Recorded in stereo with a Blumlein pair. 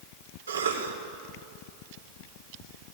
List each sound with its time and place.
0.5 s a cough: 70° right, 3.5 m